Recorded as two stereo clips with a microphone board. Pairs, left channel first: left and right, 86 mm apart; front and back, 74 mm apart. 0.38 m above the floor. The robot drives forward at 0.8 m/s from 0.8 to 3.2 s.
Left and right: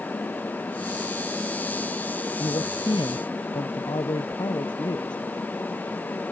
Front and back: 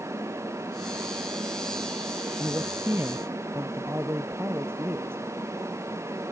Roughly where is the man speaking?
Behind left.